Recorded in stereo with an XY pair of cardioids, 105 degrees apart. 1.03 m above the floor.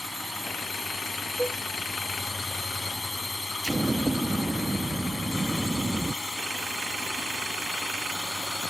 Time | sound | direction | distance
0.0 | a drone | 10° left | ?
1.4 | a cowbell | 5° right | ?
3.6 | an explosion | 15° right | ?